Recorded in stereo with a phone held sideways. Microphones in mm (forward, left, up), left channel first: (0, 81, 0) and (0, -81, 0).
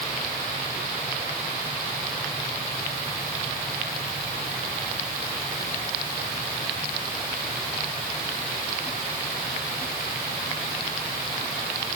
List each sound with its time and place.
Only background noise.